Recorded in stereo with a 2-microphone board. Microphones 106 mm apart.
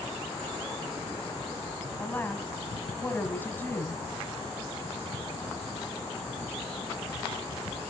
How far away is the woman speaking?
About 1.4 m.